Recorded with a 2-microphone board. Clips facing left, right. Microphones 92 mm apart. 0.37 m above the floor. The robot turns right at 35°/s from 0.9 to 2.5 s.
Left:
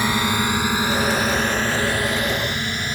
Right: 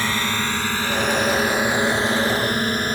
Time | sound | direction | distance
0.0 | a drone | 15° left (ahead or behind) | ?